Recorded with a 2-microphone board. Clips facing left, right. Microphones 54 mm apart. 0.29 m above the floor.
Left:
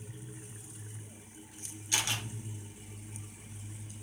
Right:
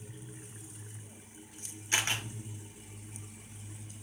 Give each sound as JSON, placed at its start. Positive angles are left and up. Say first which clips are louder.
{"t": 1.9, "sound": "a camera shutter", "louder": "right 3 dB", "side_deg": -35, "distance_m": 5.0}